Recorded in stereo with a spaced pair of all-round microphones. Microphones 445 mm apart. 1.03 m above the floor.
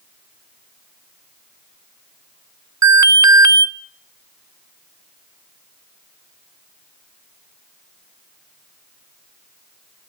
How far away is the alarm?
About 0.7 m.